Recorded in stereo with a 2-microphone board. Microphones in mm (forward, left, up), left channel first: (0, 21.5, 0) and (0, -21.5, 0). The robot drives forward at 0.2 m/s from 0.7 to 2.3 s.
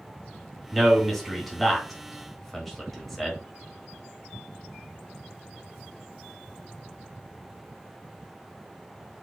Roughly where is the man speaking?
Centre.